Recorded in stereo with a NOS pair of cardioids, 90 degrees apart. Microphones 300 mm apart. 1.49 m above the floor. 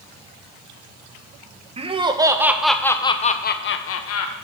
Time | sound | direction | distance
1.8 | laughter | 20° right | 1.2 m